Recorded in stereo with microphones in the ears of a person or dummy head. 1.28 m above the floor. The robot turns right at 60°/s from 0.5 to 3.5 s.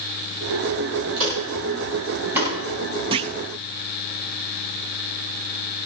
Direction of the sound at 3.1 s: 30° right (ahead or behind).